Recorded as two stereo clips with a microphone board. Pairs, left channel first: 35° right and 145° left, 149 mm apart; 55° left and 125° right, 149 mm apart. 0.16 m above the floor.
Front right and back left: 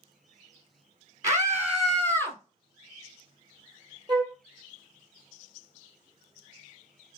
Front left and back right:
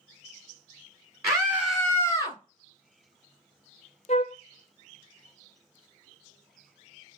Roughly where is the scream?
Behind.